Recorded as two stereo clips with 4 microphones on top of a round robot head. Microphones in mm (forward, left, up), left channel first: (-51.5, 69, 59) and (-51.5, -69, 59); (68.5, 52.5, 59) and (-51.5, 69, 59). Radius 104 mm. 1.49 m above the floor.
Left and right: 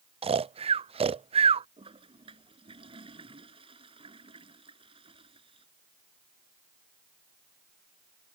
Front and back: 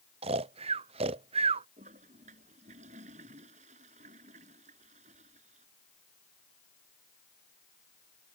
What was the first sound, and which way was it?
Snoring, 140° right.